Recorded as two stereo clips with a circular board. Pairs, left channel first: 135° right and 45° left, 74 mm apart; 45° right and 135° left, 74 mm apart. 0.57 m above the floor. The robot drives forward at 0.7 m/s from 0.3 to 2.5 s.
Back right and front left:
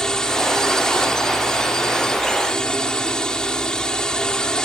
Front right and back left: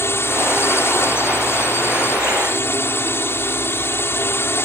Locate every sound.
0.0 s a drone: 60° right